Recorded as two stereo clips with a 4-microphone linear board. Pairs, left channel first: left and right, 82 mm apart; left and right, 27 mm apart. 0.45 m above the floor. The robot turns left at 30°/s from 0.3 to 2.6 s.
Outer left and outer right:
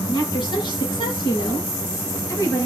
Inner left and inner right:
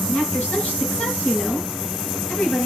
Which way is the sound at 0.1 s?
115° left.